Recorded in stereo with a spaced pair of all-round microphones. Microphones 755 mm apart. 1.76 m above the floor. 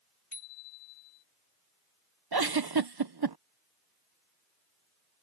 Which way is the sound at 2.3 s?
30° right (ahead or behind).